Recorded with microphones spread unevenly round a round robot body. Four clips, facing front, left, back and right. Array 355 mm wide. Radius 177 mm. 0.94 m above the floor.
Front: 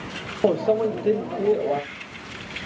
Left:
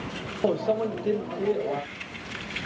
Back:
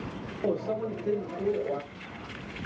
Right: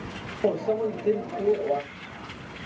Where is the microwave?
5° left, 0.5 m.